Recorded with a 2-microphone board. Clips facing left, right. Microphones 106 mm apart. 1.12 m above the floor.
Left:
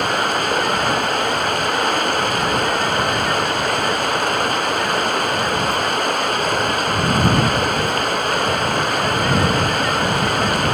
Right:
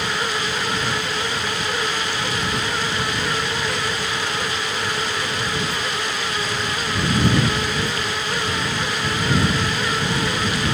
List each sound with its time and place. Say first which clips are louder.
0.0 s running water: left 5 dB; 55° left (ahead or behind)